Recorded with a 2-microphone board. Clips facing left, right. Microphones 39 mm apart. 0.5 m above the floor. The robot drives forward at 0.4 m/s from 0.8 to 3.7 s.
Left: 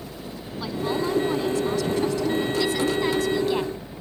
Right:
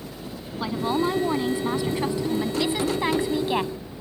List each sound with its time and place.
0.6 s a woman speaking: 20° right (ahead or behind); by 3.7 s 25° right (ahead or behind)